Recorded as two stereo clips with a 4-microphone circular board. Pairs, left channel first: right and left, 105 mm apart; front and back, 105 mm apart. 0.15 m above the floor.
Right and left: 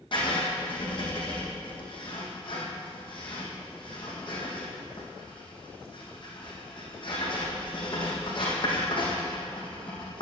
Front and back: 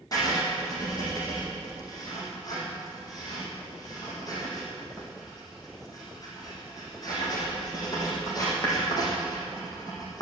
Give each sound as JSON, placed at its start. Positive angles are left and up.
{"t": 0.1, "sound": "writing", "azimuth_deg": -55, "distance_m": 4.0}